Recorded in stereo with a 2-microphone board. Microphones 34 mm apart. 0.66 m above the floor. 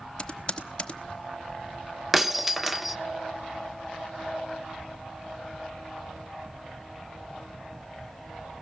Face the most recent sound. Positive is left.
turn(degrees=-5)  # may be behind; listen again after turning